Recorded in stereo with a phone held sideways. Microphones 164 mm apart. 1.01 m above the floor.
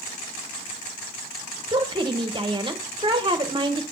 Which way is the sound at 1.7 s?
30° right (ahead or behind).